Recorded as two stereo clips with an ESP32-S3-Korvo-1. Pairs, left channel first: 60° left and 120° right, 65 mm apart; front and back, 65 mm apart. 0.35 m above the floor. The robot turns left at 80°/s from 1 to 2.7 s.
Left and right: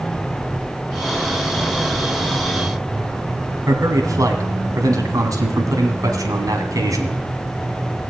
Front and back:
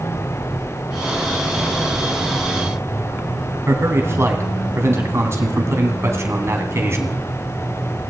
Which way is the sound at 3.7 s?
135° right.